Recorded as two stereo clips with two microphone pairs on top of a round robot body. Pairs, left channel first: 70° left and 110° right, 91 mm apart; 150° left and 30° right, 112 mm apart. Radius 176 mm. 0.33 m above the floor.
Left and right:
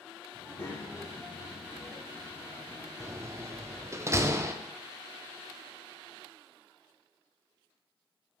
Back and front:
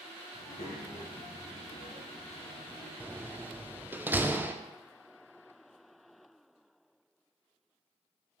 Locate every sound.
0.3 s a child speaking: 115° left, 2.0 m; by 2.9 s 160° right, 1.4 m
3.0 s a door slam: 95° right, 0.5 m